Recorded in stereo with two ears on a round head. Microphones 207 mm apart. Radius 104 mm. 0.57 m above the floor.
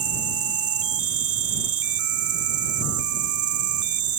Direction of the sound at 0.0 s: 70° right (ahead or behind).